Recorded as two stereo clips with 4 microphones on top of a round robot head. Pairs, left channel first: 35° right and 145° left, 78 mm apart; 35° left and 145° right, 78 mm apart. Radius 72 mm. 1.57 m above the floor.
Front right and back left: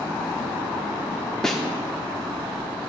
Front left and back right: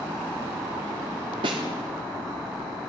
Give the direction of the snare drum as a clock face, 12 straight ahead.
4 o'clock.